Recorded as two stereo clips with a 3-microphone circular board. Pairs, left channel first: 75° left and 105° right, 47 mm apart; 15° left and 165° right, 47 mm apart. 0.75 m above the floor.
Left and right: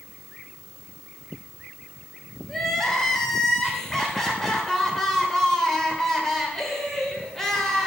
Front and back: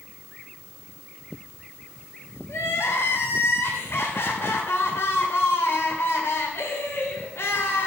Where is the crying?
5° right, 2 m.